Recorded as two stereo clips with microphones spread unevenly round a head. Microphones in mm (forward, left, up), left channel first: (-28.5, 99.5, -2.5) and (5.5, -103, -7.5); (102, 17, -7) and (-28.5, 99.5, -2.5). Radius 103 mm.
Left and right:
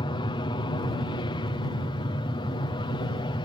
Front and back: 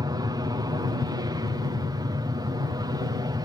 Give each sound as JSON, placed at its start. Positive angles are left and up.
{"t": 0.0, "sound": "an aircraft", "azimuth_deg": 130}